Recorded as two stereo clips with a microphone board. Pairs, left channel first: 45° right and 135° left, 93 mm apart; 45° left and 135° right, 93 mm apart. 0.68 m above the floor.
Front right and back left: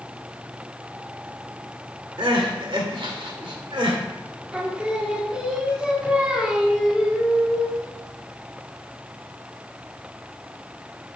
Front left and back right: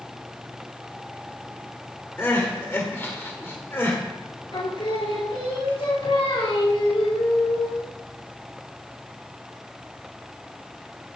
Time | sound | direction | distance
2.2 | crying | 105° left | 1.6 m
4.5 | singing | 55° left | 1.4 m